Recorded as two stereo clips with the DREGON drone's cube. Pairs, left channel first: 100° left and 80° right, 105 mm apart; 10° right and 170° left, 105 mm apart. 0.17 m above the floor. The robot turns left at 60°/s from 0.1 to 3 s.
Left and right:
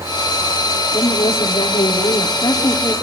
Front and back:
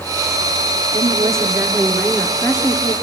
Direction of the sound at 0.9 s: 145° left.